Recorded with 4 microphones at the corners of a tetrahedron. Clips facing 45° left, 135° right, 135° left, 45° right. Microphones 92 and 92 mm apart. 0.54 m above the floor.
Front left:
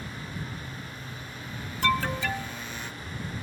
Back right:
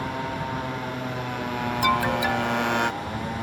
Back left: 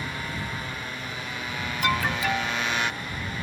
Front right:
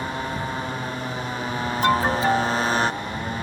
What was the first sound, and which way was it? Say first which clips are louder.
A motorcycle: back right 10 dB, front right 6 dB; 105° right.